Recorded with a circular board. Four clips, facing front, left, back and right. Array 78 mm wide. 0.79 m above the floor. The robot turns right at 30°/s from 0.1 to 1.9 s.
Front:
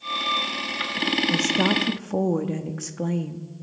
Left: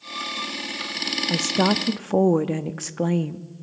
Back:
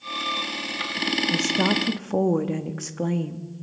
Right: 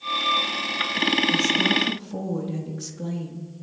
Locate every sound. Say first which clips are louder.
1.3 s a woman speaking: left 1 dB, even; 80° left, 1.0 m; by 3.4 s 100° left, 1.0 m